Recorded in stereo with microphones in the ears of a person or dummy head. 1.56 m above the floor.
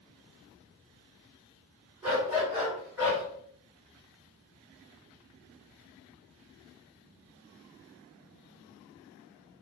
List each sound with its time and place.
2.0 s a dog barking: 10° right (ahead or behind), 1.7 m; by 3.2 s 10° left (ahead or behind), 1.9 m